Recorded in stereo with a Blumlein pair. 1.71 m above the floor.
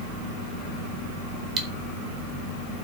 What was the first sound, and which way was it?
Cutlery clinking, 30° right.